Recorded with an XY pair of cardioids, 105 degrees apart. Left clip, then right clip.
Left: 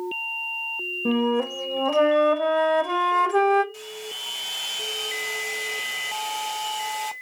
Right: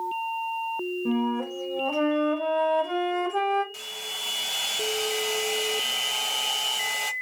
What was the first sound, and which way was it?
A flute, 55° left.